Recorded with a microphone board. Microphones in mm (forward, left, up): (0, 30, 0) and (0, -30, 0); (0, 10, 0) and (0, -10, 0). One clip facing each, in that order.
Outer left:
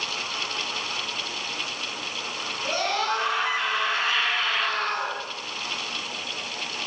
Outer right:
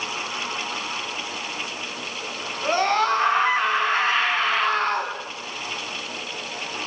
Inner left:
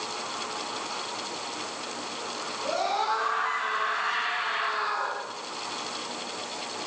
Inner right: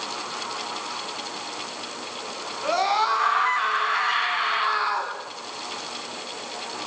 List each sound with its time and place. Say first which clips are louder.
2.6 s a scream: outer right 6 dB, inner right 6 dB; 35° right (ahead or behind), 6.5 m